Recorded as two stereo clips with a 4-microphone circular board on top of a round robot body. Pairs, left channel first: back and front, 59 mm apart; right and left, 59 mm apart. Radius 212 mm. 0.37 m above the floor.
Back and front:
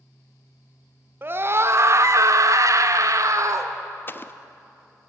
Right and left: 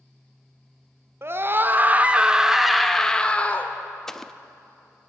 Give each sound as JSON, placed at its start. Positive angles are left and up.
{"t": 1.2, "sound": "a scream", "azimuth_deg": 50, "distance_m": 1.7}
{"t": 4.1, "sound": "an explosion", "azimuth_deg": -170, "distance_m": 0.9}